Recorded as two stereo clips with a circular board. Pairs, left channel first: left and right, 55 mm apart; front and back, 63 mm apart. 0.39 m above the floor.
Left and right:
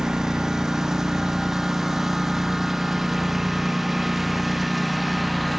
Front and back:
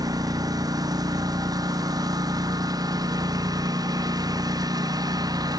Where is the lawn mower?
170° right; by 5.6 s straight behind.